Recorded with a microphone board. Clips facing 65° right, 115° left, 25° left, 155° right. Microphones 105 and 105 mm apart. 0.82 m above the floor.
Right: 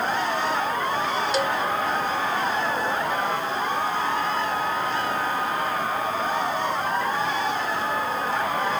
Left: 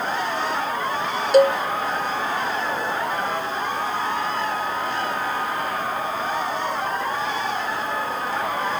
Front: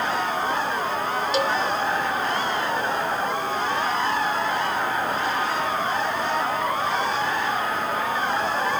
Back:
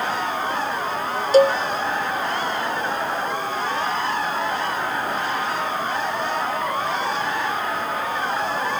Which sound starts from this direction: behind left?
A cowbell, at 1.3 s.